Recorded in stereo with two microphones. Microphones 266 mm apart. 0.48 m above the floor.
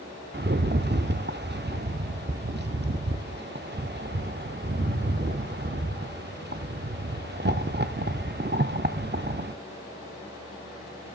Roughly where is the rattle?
Right.